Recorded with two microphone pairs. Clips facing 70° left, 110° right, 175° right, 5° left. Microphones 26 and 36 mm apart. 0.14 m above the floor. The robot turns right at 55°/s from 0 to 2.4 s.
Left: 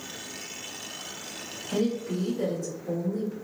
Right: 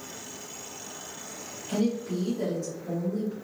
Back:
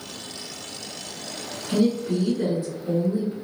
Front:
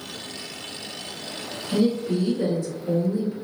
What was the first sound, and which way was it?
A woman speaking, 175° right.